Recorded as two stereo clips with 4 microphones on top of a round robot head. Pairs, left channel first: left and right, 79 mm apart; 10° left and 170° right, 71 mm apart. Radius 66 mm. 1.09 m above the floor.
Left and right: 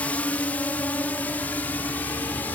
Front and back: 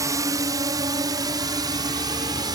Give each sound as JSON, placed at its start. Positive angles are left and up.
{"t": 0.0, "sound": "a drone", "azimuth_deg": 160}